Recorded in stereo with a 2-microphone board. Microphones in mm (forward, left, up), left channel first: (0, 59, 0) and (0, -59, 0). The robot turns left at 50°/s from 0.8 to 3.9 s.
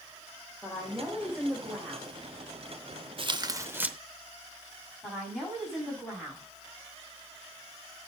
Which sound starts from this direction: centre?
A woman speaking, at 5.0 s.